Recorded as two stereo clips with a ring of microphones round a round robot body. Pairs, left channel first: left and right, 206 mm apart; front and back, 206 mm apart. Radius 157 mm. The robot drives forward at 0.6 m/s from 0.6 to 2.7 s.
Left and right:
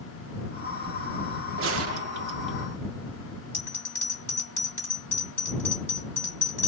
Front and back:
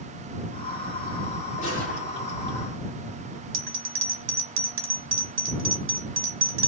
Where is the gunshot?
70° right, 0.6 m; by 2.6 s 130° right, 0.7 m.